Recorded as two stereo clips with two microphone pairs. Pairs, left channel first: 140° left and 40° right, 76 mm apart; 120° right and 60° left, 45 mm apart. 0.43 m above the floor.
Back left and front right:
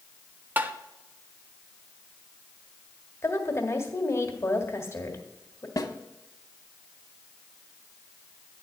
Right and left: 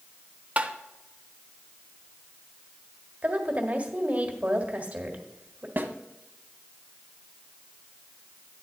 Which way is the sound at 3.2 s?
100° left.